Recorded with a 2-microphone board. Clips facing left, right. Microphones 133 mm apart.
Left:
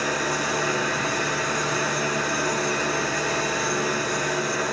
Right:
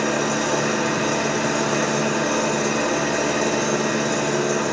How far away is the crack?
No crack in this recording.